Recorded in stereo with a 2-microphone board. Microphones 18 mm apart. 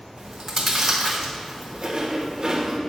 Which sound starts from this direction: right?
Chewing, at 0.2 s.